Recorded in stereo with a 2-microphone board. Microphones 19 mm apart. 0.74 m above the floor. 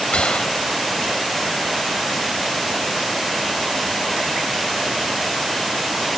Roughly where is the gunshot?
Left.